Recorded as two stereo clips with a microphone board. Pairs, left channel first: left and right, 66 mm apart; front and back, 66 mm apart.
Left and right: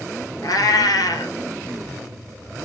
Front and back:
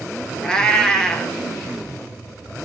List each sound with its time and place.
0.4 s a cat meowing: 80° left, 0.6 m